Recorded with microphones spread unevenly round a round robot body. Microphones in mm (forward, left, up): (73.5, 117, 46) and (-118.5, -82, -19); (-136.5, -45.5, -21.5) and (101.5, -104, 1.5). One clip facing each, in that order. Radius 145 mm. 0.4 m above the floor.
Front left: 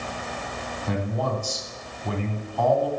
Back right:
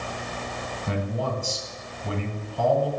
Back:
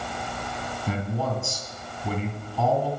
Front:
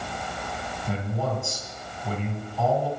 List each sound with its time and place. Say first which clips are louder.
0.9 s a man speaking: front left 1 dB, back 1 dB; 165° left, 2.5 m